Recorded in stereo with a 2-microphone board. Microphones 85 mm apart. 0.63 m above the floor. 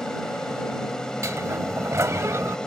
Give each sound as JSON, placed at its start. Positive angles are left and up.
{"t": 0.0, "sound": "an aircraft", "side_deg": 5}
{"t": 1.2, "sound": "a sliding door", "side_deg": -35}